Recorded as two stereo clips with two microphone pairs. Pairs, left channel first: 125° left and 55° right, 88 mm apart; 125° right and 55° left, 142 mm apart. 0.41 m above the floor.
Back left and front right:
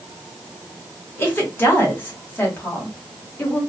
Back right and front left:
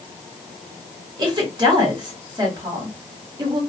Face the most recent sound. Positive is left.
turn(degrees=85)